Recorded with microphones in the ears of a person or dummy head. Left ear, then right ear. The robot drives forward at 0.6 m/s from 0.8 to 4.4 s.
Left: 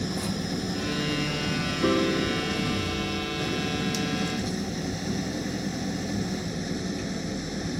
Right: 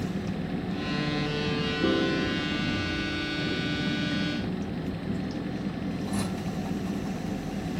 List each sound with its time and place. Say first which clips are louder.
0.0 s an engine running: left 3 dB; 80° left; by 7.8 s 70° left (ahead or behind)
1.8 s a piano: left 3 dB; 60° left (ahead or behind); by 3.7 s 65° left (ahead or behind)